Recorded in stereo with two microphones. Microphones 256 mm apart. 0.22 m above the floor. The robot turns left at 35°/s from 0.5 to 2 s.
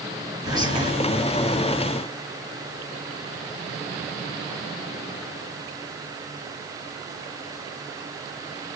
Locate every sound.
0.5 s whispering: 15° right (ahead or behind), 1.2 m; by 0.9 s 20° right (ahead or behind), 1.2 m